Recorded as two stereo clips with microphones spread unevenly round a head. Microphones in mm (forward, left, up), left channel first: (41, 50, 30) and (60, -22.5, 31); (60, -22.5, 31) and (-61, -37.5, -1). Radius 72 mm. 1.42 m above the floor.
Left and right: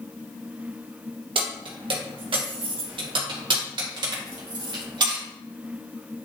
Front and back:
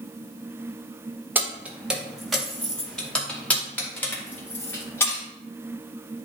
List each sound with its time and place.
1.4 s keys jangling: 95° right, 1.5 m; by 5.2 s 60° right, 3 m